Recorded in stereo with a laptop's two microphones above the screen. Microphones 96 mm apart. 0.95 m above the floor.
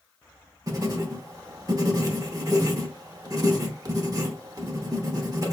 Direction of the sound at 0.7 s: 40° right (ahead or behind).